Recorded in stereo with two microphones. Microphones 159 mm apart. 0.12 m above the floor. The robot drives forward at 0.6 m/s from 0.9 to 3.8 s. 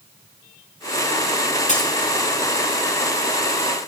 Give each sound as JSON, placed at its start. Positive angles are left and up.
{"t": 1.7, "sound": "breaking glass", "side_deg": 50, "distance_m": 1.8}